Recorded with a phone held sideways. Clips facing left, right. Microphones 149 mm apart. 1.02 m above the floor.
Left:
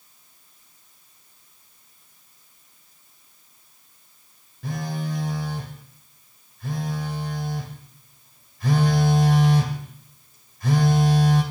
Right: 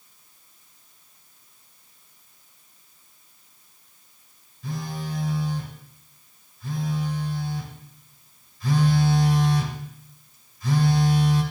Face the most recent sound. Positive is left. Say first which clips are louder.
# left 3 dB
turn(degrees=65)  # may be behind; listen again after turning